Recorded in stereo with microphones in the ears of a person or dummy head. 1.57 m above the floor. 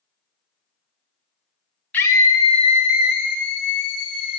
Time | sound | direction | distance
1.9 | a scream | 10° left (ahead or behind) | 1.6 m